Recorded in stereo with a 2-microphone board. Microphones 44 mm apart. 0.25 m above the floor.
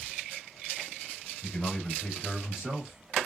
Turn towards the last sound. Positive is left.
turn(degrees=-25)  # may be behind; listen again after turning